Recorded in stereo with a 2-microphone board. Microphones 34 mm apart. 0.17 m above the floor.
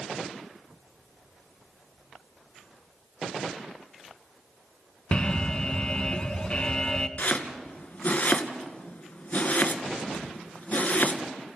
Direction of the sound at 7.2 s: 50° left (ahead or behind).